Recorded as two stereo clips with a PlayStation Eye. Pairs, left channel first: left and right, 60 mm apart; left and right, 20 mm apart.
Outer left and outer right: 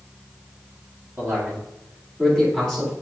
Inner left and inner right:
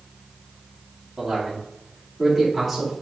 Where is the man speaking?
30° right (ahead or behind), 2.5 m; by 2.9 s 5° right (ahead or behind), 3 m.